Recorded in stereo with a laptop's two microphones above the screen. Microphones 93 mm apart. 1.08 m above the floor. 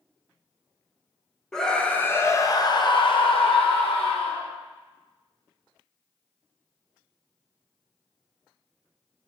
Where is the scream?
5° left (ahead or behind), 1.0 m; by 4.5 s 70° left (ahead or behind), 1.4 m.